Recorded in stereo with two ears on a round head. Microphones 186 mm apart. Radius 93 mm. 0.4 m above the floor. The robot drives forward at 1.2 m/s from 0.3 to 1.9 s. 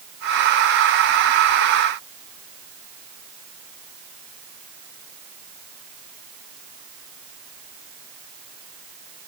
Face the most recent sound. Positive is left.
No sound to turn to.